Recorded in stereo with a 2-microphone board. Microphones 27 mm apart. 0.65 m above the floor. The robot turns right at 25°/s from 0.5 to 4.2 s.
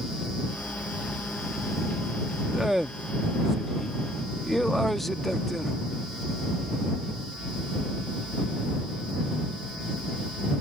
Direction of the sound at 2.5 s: 35° right.